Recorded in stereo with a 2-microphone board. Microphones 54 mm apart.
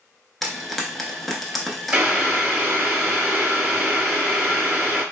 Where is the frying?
5° left (ahead or behind), 0.7 m.